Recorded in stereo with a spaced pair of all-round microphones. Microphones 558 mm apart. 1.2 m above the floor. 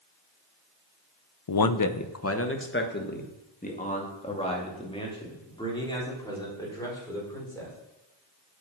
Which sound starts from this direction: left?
A man speaking, at 1.5 s.